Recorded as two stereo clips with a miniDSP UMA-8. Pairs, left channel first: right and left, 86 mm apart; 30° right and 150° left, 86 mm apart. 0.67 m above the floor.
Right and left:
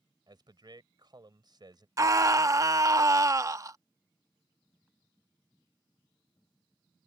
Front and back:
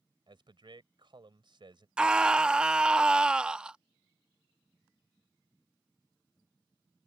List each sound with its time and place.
0.3 s a man speaking: 125° left
2.0 s a scream: 75° left